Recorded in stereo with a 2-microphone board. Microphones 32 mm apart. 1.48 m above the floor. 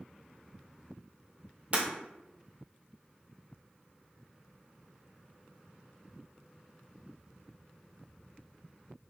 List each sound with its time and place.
1.7 s breaking glass: 40° right (ahead or behind), 1.8 m